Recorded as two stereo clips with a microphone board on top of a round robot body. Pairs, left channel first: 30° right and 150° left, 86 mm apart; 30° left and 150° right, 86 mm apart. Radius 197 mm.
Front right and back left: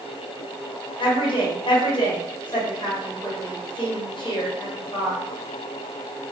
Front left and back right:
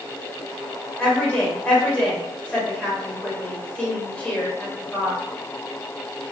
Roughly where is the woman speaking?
Ahead right.